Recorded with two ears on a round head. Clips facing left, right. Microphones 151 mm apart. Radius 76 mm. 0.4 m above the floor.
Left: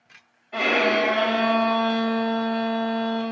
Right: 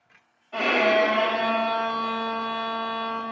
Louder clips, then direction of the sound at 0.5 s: Right 1 dB; 15° left (ahead or behind).